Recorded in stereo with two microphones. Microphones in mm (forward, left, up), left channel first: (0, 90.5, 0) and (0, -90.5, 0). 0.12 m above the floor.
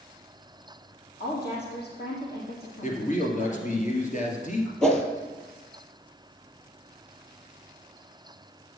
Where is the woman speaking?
65° left (ahead or behind), 5 m.